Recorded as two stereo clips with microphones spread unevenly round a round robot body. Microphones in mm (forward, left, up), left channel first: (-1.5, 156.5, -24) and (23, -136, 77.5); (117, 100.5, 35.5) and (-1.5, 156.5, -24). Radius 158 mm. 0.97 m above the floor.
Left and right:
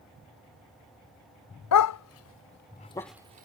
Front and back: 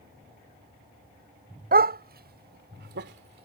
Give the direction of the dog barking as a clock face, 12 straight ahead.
7 o'clock.